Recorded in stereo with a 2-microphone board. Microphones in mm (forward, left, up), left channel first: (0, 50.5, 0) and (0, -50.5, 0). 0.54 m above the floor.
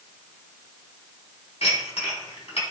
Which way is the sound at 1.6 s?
80° left.